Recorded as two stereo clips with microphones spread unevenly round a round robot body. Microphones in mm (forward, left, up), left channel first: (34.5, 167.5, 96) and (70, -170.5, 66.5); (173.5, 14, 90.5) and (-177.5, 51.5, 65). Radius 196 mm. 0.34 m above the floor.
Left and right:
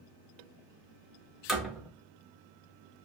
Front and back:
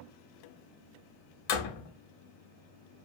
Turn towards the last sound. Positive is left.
turn(degrees=5)